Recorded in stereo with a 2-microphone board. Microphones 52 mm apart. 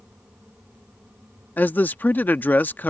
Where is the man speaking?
30° left (ahead or behind).